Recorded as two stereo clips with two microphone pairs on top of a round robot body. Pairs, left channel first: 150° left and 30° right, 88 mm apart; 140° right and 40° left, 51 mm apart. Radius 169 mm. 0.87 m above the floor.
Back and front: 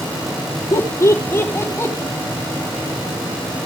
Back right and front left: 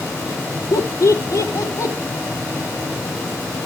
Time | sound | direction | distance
0.7 | laughter | 150° right | 1.8 m